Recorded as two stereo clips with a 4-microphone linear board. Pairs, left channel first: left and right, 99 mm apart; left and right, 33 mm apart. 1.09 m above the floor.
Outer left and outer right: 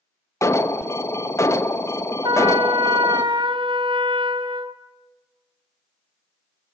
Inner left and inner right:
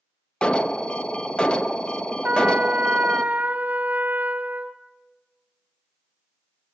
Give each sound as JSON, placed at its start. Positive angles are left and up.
{"t": 0.4, "sound": "an alarm", "side_deg": 30, "distance_m": 0.9}
{"t": 2.2, "sound": "a trumpet", "side_deg": -55, "distance_m": 1.1}